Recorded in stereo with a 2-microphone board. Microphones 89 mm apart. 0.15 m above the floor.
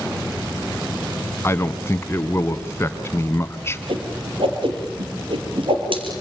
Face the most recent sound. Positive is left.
turn(degrees=-70)  # may be behind; listen again after turning